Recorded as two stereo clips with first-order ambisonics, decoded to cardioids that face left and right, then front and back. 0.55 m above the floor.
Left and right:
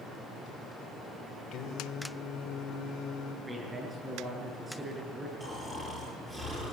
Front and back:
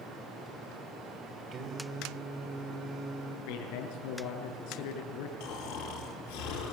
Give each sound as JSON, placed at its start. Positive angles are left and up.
{"t": 1.5, "sound": "singing", "azimuth_deg": 125, "distance_m": 1.9}
{"t": 3.5, "sound": "a man speaking", "azimuth_deg": -10, "distance_m": 6.5}
{"t": 5.4, "sound": "snoring", "azimuth_deg": -10, "distance_m": 7.5}